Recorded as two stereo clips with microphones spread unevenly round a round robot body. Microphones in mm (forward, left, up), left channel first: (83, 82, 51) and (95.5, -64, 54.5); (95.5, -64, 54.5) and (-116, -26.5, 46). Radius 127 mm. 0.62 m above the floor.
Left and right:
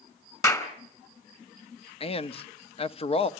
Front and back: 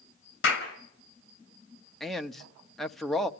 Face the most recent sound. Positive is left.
turn(degrees=80)